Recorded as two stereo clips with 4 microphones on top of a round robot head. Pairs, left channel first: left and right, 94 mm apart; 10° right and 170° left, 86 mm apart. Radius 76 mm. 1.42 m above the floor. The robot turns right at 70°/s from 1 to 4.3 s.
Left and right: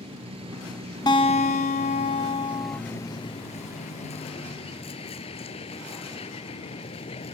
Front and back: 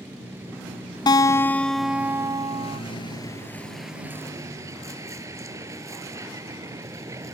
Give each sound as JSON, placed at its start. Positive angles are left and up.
{"t": 0.0, "sound": "a vehicle", "azimuth_deg": -115}
{"t": 1.1, "sound": "a guitar", "azimuth_deg": 30}